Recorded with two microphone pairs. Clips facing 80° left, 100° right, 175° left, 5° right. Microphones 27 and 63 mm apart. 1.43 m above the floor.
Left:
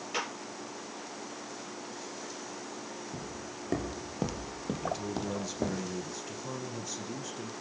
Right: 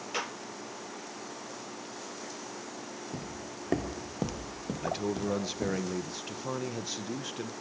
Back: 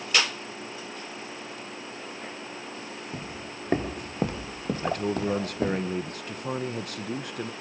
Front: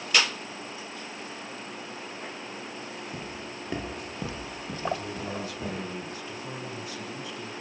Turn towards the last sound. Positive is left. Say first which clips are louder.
# right 4 dB, back 4 dB
turn(degrees=-155)